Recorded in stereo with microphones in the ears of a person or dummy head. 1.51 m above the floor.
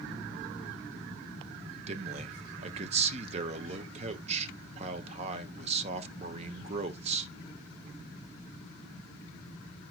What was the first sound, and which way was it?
A man speaking, 40° right (ahead or behind).